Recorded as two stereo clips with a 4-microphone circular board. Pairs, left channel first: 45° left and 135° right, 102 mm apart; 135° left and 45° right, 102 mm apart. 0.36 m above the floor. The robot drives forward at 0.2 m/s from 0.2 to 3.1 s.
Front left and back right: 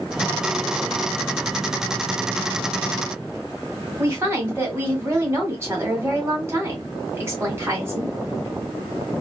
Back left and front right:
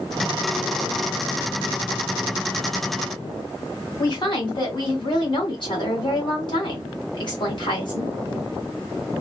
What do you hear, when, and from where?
4.0 s a woman speaking: 160° left, 1.8 m